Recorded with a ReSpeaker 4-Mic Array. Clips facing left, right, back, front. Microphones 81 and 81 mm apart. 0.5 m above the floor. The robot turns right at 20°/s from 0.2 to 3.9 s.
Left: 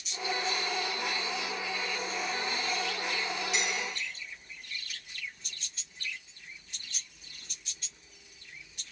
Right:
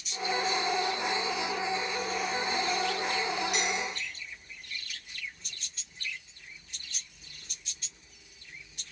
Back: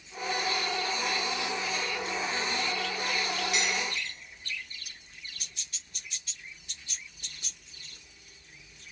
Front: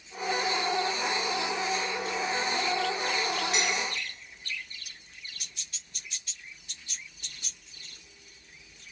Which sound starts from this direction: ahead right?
Dishes clattering, at 3.5 s.